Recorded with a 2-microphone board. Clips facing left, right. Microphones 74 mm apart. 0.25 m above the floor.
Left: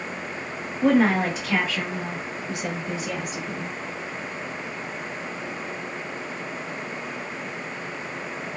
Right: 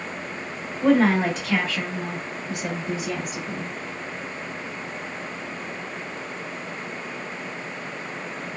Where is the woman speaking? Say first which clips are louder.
Right 1 dB; 5° left (ahead or behind), 1.0 m; by 3.7 s 5° right (ahead or behind), 1.4 m.